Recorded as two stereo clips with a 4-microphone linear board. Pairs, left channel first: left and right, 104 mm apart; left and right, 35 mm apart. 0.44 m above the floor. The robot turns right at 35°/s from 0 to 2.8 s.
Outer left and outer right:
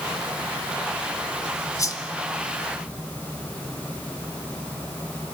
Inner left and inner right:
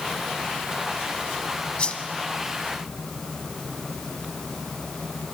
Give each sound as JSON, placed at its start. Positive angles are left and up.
{"t": 1.8, "sound": "a whoosh", "side_deg": 30, "distance_m": 1.0}